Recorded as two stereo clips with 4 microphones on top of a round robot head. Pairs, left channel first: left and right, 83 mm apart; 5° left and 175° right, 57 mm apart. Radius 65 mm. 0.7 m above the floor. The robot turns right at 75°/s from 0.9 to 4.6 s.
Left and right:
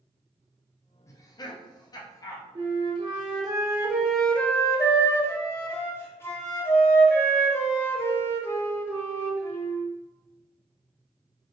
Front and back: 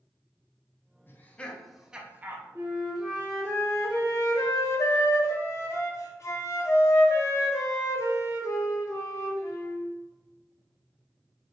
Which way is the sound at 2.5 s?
125° right.